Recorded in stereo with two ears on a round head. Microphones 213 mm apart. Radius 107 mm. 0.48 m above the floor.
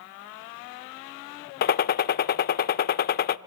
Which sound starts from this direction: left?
A gunshot, at 1.6 s.